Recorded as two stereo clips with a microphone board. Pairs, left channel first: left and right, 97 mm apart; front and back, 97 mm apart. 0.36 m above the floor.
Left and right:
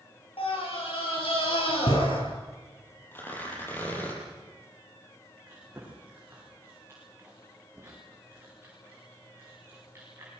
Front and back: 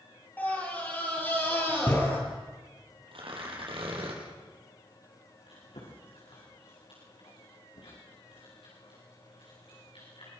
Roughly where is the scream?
Left.